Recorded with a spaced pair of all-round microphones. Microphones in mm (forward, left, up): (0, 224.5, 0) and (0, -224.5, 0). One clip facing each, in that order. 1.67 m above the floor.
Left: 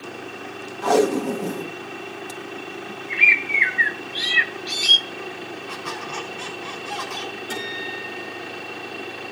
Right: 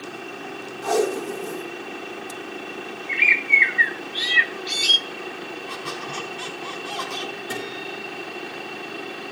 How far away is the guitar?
About 7.5 m.